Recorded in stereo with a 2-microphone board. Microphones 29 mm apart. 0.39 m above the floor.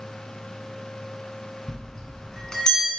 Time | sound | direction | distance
1.7 | a bell | 20° left (ahead or behind) | 1.4 m